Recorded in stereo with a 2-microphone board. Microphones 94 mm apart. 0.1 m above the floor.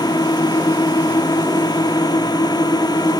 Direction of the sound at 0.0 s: 45° left (ahead or behind).